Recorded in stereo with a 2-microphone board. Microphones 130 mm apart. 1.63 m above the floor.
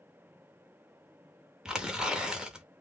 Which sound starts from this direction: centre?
Tearing paper, at 1.6 s.